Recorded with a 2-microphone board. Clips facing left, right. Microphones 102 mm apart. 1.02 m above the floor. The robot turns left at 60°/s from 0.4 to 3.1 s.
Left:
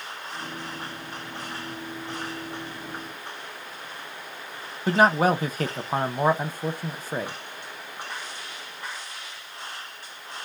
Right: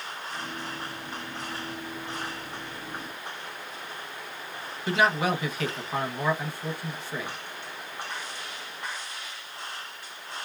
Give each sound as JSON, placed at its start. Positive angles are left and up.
{"t": 4.9, "sound": "a man speaking", "side_deg": 40, "distance_m": 0.6}